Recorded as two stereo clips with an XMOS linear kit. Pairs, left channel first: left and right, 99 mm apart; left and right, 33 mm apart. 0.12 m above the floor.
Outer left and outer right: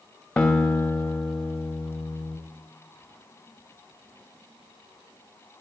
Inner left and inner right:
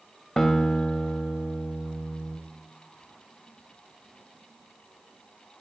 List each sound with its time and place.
0.4 s a guitar: 5° left (ahead or behind), 2 m